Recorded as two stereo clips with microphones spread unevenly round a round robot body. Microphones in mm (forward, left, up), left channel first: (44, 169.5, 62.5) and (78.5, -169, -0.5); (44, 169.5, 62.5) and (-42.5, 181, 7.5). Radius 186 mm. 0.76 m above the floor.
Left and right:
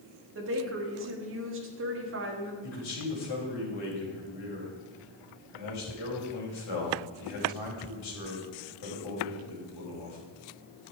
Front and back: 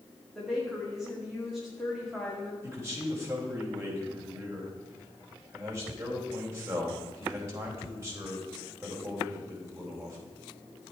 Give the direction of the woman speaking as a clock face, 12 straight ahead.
4 o'clock.